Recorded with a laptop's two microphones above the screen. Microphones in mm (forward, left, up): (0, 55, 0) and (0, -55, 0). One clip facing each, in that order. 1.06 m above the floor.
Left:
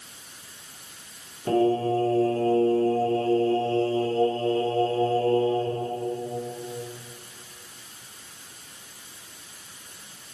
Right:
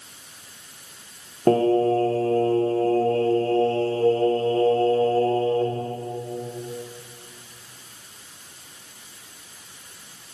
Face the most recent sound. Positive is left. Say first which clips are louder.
# right 4 dB
turn(degrees=-50)  # may be behind; listen again after turning